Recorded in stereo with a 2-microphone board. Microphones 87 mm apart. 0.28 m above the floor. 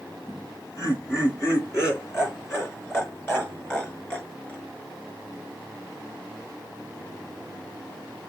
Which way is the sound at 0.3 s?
45° left (ahead or behind).